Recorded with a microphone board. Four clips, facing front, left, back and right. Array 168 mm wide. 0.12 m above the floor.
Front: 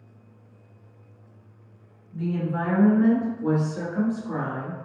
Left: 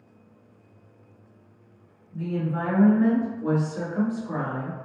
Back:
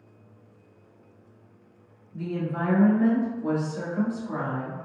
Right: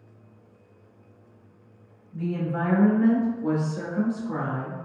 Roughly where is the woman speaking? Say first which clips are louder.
Even, front 3 dB; ahead.